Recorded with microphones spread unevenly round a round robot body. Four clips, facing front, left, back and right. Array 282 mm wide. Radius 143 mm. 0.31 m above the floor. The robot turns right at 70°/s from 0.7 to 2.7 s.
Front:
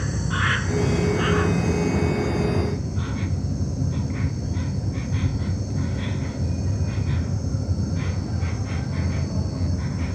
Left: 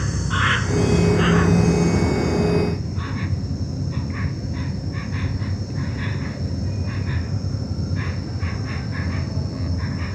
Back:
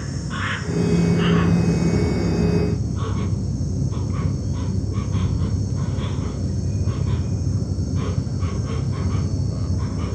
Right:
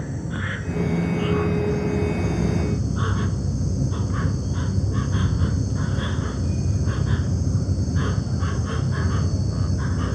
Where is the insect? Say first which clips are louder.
Left 6 dB, front 2 dB; 75° left; by 10.2 s 145° right.